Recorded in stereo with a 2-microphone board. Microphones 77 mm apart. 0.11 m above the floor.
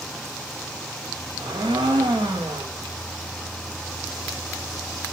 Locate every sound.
1.4 s a blender: 75° right (ahead or behind), 6 m